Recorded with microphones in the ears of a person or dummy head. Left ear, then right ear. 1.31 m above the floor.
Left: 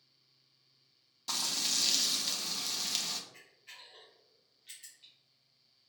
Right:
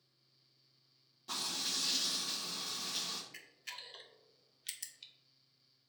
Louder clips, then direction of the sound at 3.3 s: Right 5 dB; 70° right (ahead or behind).